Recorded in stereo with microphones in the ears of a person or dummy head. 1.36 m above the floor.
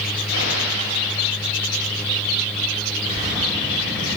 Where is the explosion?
65° left (ahead or behind), 5.5 m.